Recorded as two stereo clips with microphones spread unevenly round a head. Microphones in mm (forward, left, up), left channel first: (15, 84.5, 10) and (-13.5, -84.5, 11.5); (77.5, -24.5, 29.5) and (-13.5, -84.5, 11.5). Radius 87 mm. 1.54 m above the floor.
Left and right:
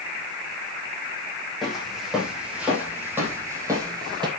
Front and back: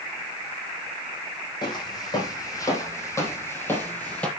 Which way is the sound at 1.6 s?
10° right.